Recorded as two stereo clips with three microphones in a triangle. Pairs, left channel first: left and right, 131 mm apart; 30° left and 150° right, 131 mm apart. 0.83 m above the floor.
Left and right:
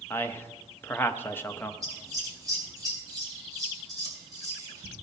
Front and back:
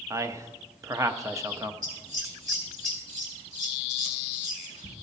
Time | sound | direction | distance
0.1 | a man speaking | 155° left | 0.7 m
1.8 | scissors | 150° right | 3 m